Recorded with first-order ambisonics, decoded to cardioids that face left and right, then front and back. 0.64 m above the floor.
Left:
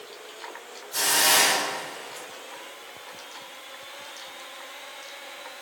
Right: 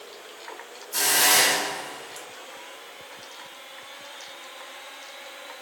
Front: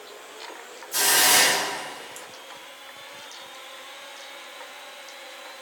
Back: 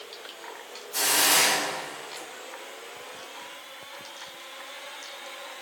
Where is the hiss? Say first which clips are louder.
Right 1 dB, front 3 dB; 35° right, 0.8 m.